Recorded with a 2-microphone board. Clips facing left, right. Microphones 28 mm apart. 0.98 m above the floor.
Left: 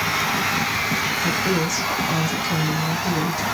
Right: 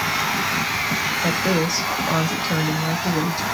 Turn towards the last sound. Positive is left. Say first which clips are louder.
# right 1 dB
turn(degrees=-50)  # may be behind; listen again after turning